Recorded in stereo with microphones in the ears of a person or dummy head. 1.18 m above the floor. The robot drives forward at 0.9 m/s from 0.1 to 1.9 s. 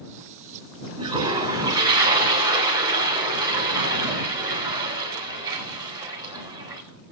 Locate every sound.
1.0 s a toilet flushing: 20° right (ahead or behind), 2 m; by 6.8 s 15° right (ahead or behind), 3 m